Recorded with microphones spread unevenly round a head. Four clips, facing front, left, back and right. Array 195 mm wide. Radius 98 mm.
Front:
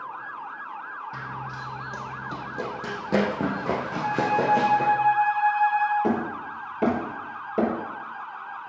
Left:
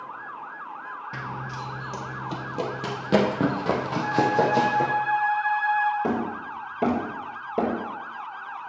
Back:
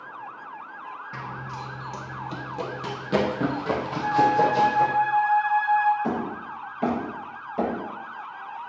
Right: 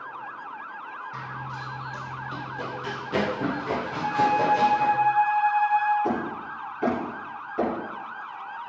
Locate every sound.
1.1 s running footsteps: 90° left, 1.5 m; by 4.9 s 60° left, 3 m
4.0 s a flute: 50° left, 5 m
6.0 s hammering: 50° left, 6 m